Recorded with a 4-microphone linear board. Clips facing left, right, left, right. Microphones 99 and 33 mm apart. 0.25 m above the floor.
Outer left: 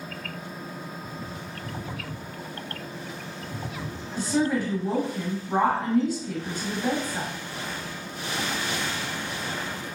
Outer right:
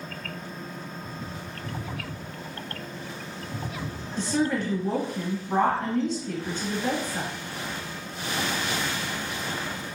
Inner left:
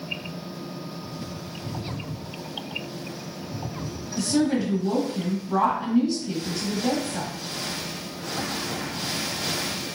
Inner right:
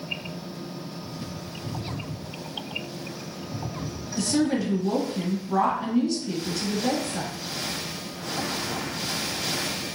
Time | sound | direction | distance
4.2 | a woman speaking | 10° left (ahead or behind) | 1.0 m